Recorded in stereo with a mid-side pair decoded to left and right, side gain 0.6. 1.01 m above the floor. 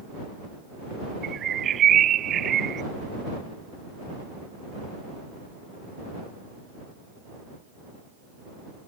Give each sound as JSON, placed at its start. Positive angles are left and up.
{"t": 1.2, "sound": "a bird", "azimuth_deg": -45}